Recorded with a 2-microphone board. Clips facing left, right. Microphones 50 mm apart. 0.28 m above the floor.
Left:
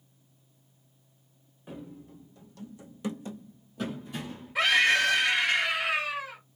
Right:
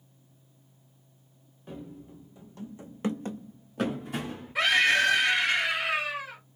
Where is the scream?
5° right (ahead or behind), 1.3 m.